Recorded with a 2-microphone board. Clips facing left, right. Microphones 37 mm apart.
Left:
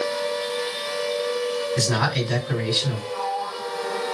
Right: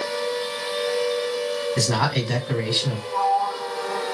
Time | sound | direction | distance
1.8 | a man speaking | 35° right (ahead or behind) | 2.0 m
3.1 | a sliding door | 40° right (ahead or behind) | 1.7 m